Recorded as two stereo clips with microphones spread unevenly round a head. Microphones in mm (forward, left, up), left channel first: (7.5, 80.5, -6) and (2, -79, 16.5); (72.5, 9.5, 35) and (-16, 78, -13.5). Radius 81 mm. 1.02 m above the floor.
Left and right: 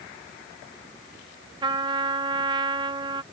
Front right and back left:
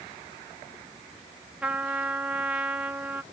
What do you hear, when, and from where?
1.6 s a trumpet: 160° right